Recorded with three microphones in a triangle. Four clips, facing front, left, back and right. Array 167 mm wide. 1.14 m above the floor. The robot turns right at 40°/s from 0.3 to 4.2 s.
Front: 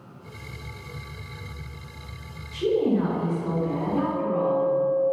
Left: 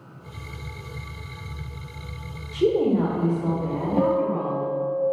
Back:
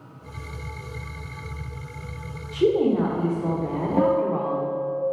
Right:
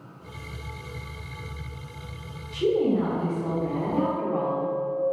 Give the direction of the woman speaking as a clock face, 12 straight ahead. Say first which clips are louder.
Left 2 dB, back 3 dB; 7 o'clock.